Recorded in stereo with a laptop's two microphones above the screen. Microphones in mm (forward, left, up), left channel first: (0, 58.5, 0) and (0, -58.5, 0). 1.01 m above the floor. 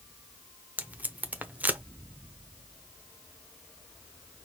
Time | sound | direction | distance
0.8 | tape being pulled | 15° right (ahead or behind) | 0.7 m